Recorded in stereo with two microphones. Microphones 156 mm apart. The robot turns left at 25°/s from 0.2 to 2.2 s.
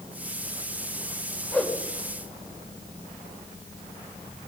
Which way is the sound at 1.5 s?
10° left (ahead or behind).